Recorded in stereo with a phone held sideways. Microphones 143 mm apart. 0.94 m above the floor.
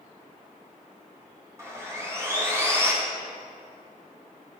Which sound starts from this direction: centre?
Sawing, at 1.6 s.